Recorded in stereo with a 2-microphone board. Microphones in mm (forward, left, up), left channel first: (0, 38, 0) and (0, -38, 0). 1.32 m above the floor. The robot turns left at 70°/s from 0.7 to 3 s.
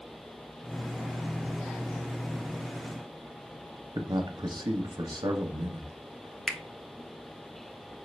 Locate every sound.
4.0 s a man speaking: 60° right (ahead or behind), 0.7 m
6.5 s a finger snap: 5° right (ahead or behind), 0.6 m